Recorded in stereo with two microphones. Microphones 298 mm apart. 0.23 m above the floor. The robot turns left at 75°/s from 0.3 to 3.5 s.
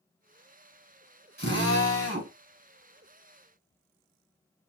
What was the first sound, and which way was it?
A drill, 55° right.